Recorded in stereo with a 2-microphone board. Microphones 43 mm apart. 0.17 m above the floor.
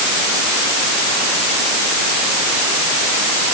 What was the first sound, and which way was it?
Only background noise.